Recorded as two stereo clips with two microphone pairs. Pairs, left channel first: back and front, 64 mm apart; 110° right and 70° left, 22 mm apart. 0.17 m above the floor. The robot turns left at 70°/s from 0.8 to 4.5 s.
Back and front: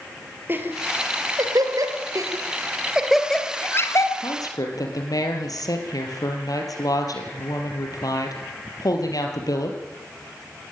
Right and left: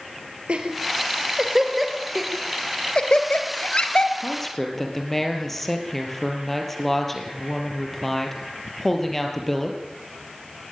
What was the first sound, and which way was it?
Laughter, 50° left.